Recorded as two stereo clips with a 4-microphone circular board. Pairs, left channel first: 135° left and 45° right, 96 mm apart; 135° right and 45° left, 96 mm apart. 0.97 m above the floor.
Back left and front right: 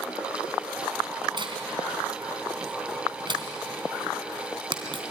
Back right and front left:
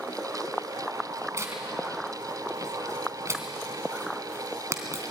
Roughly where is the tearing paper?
Ahead.